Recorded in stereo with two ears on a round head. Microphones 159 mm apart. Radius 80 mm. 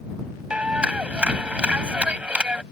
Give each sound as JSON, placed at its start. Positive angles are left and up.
{"t": 0.5, "sound": "a clap", "side_deg": -5}